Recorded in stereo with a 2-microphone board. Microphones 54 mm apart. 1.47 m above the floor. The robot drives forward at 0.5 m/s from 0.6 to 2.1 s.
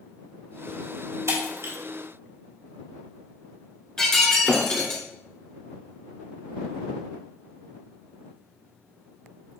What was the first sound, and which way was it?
Breaking glass, 70° right (ahead or behind).